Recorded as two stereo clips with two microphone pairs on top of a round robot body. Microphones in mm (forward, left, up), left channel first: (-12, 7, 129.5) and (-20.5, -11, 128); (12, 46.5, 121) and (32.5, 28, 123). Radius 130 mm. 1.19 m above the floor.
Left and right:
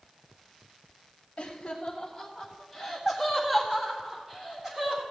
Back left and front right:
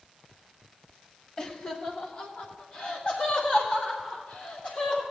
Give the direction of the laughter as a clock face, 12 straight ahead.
9 o'clock.